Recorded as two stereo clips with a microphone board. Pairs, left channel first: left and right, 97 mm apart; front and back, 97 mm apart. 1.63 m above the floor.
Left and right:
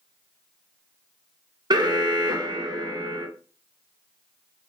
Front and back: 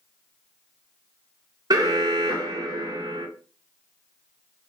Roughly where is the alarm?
Behind right.